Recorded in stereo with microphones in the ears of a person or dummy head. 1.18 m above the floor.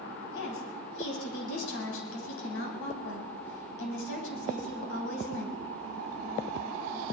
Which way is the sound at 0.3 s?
70° left (ahead or behind).